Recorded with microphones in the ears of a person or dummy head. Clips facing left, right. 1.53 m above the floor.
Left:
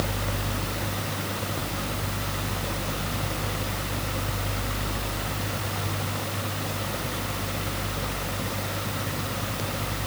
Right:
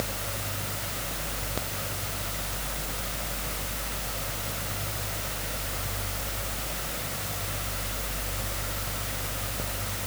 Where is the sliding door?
No sliding door in this recording.